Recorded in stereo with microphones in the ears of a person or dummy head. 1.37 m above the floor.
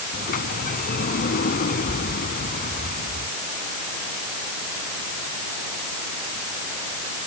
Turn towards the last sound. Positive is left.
turn(degrees=45)  # may be behind; listen again after turning